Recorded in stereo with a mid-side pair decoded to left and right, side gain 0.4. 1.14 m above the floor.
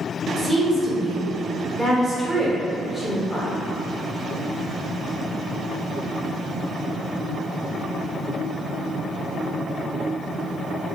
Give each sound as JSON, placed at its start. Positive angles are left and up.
{"t": 0.4, "sound": "a woman speaking", "azimuth_deg": 0, "distance_m": 1.8}